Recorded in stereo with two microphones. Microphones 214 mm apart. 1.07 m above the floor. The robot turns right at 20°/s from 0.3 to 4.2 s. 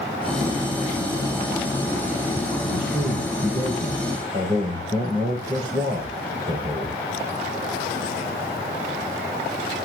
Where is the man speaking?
65° right, 4.5 m; by 7.0 s 30° right, 4.5 m.